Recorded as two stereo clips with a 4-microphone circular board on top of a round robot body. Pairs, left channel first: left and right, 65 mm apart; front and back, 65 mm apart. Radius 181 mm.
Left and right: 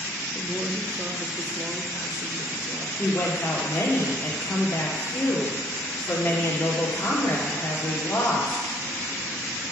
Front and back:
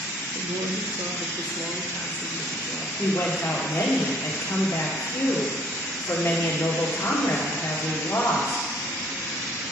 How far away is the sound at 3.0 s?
About 2.5 m.